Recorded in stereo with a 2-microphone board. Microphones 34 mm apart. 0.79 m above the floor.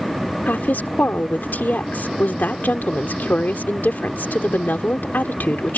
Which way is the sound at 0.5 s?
65° left (ahead or behind).